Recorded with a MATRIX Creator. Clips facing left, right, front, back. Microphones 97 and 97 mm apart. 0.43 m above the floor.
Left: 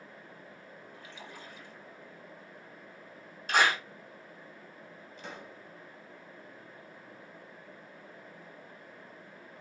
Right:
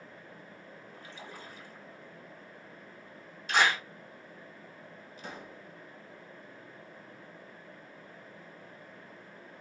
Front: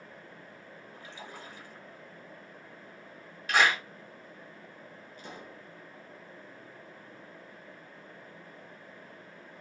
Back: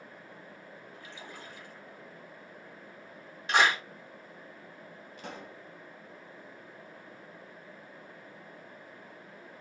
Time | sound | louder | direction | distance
0.9 | a splash | right 2 dB, front 3 dB | 45° right | 2 m
3.5 | a clap | even, even | 115° left | 2.0 m
5.2 | a pop | right 1 dB, back 2 dB | 175° right | 1.1 m